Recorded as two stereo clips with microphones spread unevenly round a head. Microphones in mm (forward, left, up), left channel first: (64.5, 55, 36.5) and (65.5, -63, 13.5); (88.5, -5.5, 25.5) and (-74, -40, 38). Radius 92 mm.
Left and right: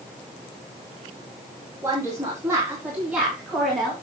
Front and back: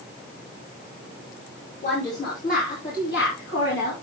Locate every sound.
1.8 s a woman speaking: 30° right, 3.5 m; by 3.9 s straight ahead, 3 m